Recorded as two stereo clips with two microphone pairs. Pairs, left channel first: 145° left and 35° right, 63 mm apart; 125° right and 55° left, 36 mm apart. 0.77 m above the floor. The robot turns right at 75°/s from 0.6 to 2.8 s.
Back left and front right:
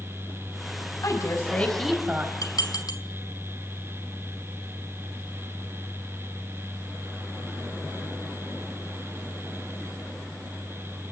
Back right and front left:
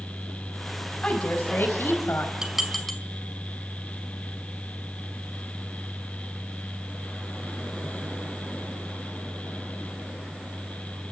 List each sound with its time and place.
1.0 s a woman speaking: 175° left, 4 m; by 2.3 s 90° right, 4 m
2.4 s dishes clattering: 125° left, 2 m; by 3.0 s 155° left, 2 m